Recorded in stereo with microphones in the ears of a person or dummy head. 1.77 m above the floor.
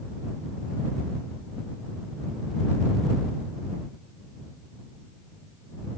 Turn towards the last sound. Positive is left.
No sound to turn to.